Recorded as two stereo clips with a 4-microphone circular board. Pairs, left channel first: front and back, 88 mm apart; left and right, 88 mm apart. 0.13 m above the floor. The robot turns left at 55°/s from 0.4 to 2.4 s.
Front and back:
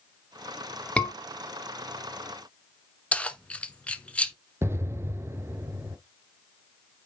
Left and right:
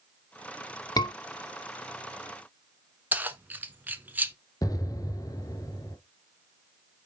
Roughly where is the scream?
Left.